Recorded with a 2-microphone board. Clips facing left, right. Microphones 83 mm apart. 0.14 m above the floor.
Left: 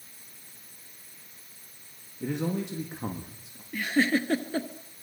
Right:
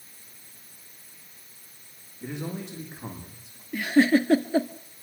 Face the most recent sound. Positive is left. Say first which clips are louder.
# right 5 dB
turn(degrees=-10)  # may be behind; listen again after turning